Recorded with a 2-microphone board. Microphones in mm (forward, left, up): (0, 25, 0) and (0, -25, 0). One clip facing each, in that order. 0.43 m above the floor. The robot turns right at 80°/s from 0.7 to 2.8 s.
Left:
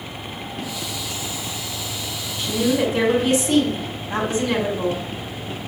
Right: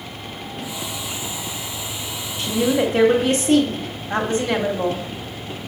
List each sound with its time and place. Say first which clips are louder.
2.4 s a woman speaking: right 1 dB; 90° right, 2.5 m; by 5.0 s 55° right, 2.5 m